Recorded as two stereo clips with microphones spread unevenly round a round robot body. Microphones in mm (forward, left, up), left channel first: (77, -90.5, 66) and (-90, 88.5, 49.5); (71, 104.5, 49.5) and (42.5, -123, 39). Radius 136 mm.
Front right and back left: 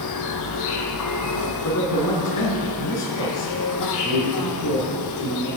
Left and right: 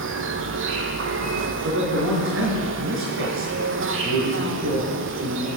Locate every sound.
0.0 s an insect: 60° right, 1.2 m
1.6 s a man speaking: 65° right, 4.5 m